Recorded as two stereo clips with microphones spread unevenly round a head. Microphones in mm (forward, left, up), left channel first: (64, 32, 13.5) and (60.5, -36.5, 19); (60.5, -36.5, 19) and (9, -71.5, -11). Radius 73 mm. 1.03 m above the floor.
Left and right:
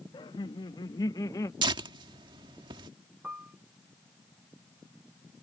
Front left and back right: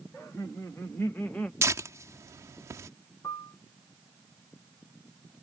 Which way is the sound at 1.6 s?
110° right.